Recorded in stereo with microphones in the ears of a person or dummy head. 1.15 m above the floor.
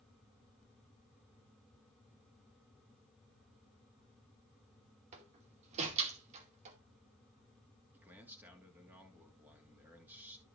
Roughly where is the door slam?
Right.